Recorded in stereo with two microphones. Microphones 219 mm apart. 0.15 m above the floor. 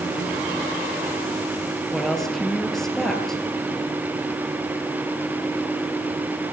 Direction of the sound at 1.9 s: Centre (ahead or behind).